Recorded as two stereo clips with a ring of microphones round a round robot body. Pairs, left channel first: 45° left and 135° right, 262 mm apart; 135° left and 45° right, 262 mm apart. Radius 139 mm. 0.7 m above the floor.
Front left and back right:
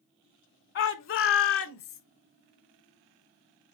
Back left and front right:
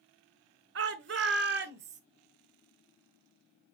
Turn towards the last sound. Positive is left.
turn(degrees=5)